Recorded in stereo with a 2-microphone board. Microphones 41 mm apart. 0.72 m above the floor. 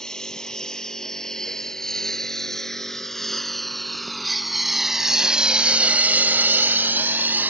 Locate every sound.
0.0 s a lawn mower: 10° left (ahead or behind); by 7.5 s 45° right (ahead or behind)